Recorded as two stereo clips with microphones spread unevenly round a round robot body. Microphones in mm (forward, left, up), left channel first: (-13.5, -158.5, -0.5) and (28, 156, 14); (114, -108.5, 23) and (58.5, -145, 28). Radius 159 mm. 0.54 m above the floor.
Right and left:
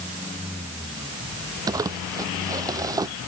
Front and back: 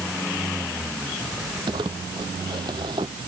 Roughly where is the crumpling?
Behind.